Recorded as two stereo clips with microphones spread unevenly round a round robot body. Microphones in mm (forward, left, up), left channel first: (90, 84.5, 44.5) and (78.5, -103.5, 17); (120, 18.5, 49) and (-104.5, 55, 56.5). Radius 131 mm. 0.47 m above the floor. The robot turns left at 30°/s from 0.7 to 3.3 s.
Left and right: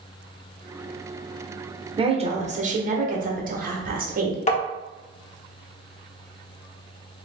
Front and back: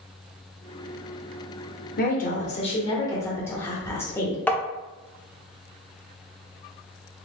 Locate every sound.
2.0 s a woman speaking: 45° right, 1.3 m; by 4.4 s 85° right, 1.3 m
4.5 s tapping: 65° left, 1.0 m